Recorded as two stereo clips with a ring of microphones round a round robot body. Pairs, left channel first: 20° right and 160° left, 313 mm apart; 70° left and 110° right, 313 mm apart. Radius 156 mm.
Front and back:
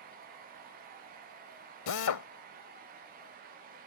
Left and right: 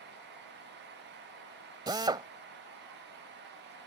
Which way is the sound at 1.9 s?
40° right.